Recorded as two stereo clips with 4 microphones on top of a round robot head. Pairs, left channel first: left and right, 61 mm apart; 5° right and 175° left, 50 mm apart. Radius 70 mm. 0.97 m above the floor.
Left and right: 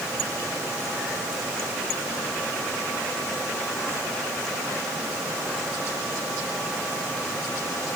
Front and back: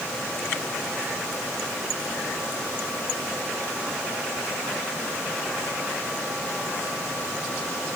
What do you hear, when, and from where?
Only background noise.